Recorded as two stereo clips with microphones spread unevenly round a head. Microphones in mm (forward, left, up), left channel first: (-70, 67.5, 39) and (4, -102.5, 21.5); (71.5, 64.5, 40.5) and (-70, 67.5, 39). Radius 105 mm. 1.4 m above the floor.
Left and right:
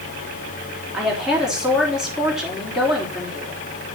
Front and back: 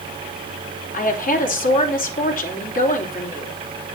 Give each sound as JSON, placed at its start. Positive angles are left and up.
{"t": 0.9, "sound": "a woman speaking", "azimuth_deg": 20, "distance_m": 3.5}